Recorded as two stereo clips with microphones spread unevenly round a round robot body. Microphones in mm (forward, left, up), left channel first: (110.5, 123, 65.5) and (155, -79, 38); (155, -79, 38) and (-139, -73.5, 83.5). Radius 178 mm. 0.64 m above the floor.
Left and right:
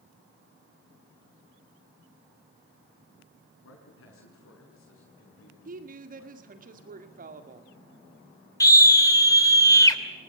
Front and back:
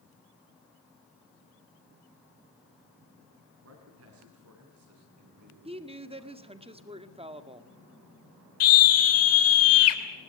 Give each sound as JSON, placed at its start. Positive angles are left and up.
{"t": 3.6, "sound": "a man speaking", "azimuth_deg": 130, "distance_m": 6.0}
{"t": 5.7, "sound": "a woman speaking", "azimuth_deg": -110, "distance_m": 1.9}
{"t": 8.6, "sound": "a scream", "azimuth_deg": 25, "distance_m": 3.0}